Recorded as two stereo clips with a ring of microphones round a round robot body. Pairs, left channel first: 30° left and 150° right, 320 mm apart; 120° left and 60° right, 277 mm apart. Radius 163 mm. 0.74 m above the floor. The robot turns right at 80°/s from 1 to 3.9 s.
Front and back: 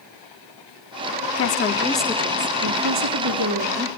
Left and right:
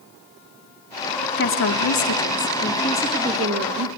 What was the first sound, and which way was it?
A woman speaking, 70° left.